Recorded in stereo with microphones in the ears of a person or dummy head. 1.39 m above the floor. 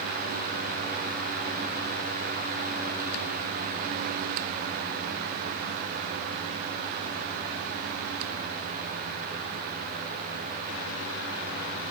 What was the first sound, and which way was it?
Only background noise.